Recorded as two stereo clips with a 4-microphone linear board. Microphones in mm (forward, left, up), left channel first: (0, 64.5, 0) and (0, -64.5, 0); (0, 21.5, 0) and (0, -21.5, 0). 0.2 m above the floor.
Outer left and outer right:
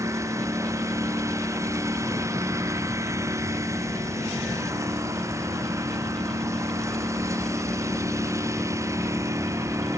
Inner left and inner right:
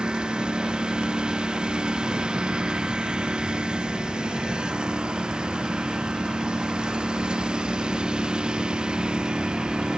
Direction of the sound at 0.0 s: 20° right (ahead or behind).